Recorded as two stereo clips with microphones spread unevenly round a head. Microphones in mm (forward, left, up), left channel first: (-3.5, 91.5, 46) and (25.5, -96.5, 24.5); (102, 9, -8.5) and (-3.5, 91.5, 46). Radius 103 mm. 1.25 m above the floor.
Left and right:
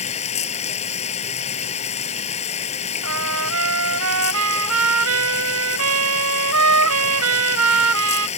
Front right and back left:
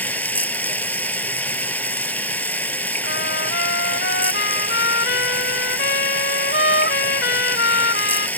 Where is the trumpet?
80° right.